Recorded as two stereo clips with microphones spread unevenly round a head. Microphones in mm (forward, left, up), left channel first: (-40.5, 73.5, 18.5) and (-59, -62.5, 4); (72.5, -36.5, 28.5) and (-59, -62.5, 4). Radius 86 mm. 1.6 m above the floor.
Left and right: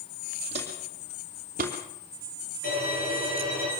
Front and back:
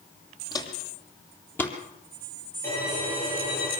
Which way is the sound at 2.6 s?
90° left.